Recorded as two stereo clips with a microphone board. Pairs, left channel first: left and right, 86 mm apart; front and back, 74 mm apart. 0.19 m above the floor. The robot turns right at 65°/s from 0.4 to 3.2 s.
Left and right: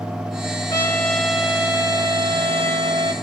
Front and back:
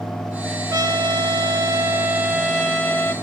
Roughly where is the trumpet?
Behind left.